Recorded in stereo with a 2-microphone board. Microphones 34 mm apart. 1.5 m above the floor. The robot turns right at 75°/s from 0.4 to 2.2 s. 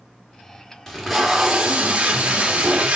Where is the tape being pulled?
160° left, 1.5 m; by 3.0 s 100° right, 1.5 m.